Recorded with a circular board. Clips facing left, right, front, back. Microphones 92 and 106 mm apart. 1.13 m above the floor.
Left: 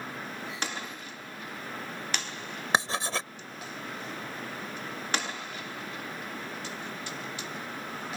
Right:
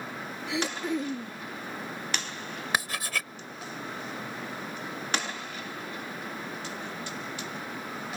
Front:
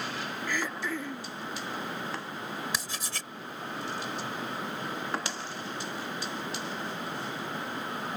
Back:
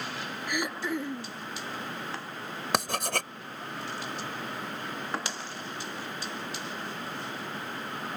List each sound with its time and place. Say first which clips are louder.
0.5 s throat clearing: right 12 dB, back 3 dB; 105° right
2.7 s writing: left 4 dB, back 8 dB; 150° left